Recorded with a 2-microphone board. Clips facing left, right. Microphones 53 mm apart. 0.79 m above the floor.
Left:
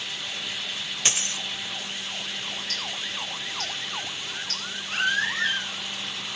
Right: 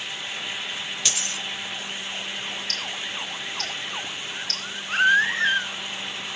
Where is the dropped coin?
35° left (ahead or behind), 0.6 m.